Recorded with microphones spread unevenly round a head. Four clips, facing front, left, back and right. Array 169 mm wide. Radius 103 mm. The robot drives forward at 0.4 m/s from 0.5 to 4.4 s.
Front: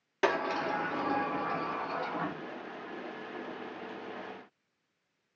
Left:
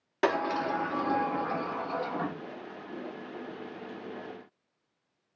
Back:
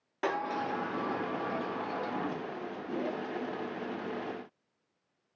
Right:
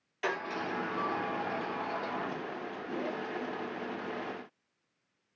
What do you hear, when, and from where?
0.2 s a sliding door: 65° left, 1.4 m; by 2.4 s 95° left, 1.3 m